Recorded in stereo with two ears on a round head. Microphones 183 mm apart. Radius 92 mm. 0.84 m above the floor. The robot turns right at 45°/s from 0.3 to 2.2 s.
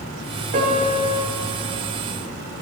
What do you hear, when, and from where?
0.5 s a piano: 40° right (ahead or behind), 2 m; by 1.1 s 15° right (ahead or behind), 2 m